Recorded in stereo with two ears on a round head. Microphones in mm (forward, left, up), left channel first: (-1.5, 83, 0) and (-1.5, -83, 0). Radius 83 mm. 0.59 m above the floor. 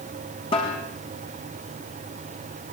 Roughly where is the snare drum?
Left.